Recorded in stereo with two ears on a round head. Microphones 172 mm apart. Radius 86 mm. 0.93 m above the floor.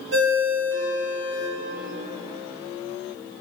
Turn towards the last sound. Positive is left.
turn(degrees=-65)  # may be behind; listen again after turning